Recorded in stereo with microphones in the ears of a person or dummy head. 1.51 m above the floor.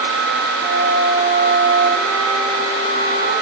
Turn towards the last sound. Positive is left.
turn(degrees=-45)  # may be behind; listen again after turning